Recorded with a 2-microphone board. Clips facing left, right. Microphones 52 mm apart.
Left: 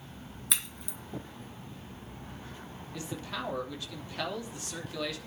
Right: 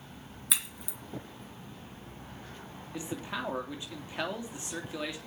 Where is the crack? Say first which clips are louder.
Even; centre (ahead or behind), 1.8 m.